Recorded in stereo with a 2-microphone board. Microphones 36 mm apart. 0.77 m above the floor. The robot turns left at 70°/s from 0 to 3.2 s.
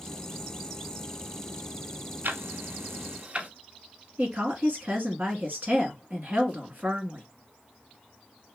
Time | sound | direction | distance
2.2 | ticking | 55° right (ahead or behind) | 0.5 m
4.2 | a woman speaking | 50° right (ahead or behind) | 1.4 m